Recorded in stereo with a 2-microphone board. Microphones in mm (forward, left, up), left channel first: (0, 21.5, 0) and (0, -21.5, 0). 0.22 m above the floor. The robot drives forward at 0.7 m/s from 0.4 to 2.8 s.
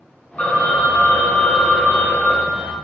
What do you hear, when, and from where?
0.4 s a phone ringing: 35° left (ahead or behind), 1.3 m